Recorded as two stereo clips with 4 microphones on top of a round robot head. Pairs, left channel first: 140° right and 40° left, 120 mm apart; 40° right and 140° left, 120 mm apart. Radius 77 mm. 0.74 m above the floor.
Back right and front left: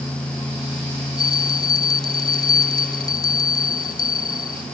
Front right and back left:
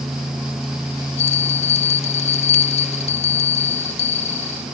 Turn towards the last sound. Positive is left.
turn(degrees=-80)